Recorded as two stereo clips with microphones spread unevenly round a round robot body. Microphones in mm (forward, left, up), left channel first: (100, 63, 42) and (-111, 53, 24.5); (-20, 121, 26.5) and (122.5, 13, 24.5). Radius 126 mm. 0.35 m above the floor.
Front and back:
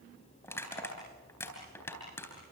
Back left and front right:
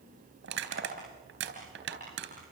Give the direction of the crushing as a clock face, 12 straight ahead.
3 o'clock.